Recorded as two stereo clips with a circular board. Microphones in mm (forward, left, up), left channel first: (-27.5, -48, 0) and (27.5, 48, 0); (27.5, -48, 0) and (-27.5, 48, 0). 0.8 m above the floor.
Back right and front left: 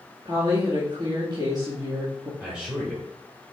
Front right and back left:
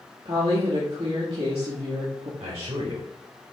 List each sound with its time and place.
0.2 s a woman speaking: 105° left, 1.8 m
2.4 s a man speaking: 140° left, 2.5 m